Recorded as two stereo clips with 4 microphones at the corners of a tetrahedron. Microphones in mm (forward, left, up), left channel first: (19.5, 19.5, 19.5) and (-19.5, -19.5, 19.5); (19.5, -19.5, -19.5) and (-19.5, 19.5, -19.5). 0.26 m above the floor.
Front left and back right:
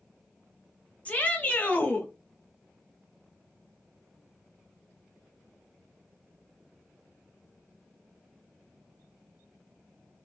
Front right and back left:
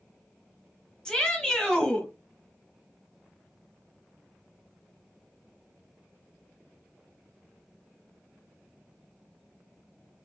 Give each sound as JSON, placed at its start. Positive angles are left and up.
{"t": 1.1, "sound": "a shout", "azimuth_deg": 15, "distance_m": 1.0}